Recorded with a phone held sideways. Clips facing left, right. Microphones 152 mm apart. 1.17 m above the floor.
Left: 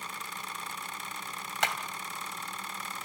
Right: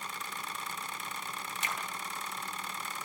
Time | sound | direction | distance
1.6 | hammering | 75° left (ahead or behind) | 2.5 m